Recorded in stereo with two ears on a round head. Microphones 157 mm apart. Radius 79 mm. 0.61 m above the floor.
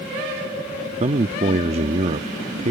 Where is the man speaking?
35° right (ahead or behind).